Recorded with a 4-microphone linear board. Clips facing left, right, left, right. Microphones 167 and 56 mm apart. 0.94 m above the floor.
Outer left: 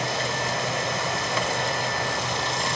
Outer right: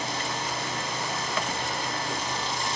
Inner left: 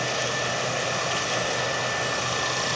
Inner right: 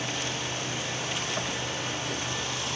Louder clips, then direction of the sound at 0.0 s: Outer left 4 dB, inner left 6 dB; 80° left.